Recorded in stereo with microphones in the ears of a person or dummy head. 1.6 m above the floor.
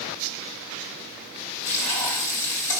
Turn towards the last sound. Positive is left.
turn(degrees=35)  # may be behind; listen again after turning